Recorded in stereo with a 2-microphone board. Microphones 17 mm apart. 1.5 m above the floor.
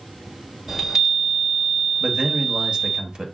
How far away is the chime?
About 1.6 m.